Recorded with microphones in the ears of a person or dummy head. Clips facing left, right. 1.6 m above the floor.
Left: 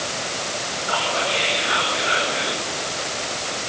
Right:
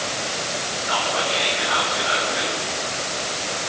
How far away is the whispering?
About 10 m.